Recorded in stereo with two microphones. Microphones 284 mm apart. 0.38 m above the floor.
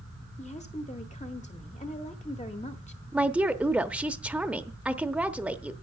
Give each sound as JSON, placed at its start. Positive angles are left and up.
{"t": 0.4, "sound": "a woman speaking", "side_deg": 25, "distance_m": 0.9}
{"t": 3.1, "sound": "a woman speaking", "side_deg": -5, "distance_m": 0.8}